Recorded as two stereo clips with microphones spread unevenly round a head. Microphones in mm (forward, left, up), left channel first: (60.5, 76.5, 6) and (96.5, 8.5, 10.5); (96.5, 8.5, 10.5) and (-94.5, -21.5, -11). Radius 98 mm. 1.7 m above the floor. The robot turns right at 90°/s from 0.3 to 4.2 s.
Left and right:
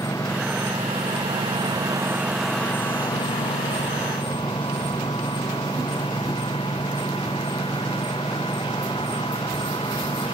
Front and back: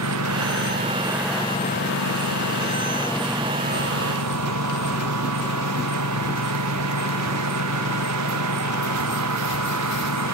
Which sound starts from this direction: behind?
A lawn mower, at 0.0 s.